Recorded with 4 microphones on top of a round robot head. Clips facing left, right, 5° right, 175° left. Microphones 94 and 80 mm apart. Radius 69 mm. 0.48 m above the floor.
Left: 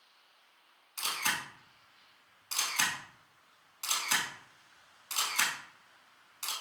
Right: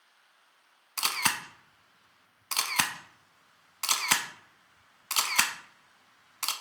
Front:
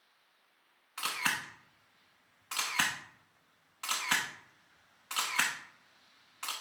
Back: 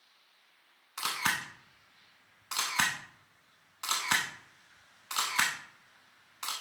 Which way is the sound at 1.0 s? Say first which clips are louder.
Right 4 dB, back 2 dB; 110° right.